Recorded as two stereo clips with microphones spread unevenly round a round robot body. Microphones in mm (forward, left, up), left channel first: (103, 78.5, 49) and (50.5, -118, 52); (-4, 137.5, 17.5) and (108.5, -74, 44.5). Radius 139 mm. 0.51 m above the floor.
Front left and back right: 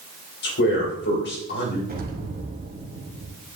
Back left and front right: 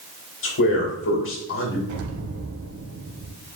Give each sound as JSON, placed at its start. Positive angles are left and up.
{"t": 0.4, "sound": "a man speaking", "azimuth_deg": 105, "distance_m": 2.0}
{"t": 1.9, "sound": "an explosion", "azimuth_deg": -60, "distance_m": 1.3}